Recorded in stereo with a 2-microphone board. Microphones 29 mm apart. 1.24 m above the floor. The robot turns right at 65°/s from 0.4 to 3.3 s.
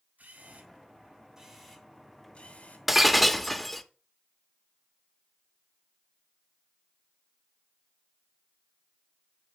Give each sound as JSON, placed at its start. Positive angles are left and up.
{"t": 0.2, "sound": "a camera shutter", "azimuth_deg": -75, "distance_m": 2.5}
{"t": 2.9, "sound": "breaking glass", "side_deg": -10, "distance_m": 0.7}